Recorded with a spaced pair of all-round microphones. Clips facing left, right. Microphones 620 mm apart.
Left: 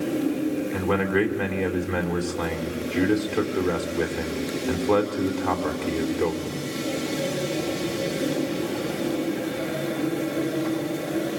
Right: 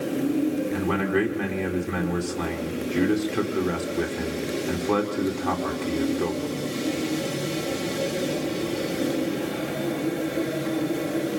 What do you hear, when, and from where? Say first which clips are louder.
0.7 s a man speaking: left 1 dB; centre (ahead or behind), 2.5 m